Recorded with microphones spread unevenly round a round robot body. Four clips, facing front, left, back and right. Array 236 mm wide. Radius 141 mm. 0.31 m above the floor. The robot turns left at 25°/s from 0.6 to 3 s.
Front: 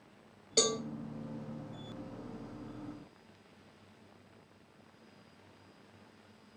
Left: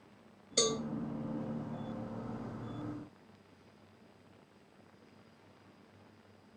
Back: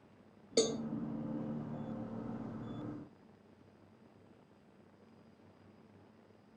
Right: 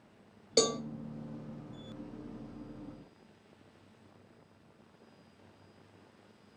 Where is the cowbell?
120° right, 0.8 m; by 0.8 s 125° right, 0.8 m.